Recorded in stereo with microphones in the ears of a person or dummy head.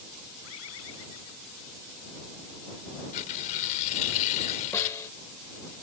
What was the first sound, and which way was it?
A bird, 80° left.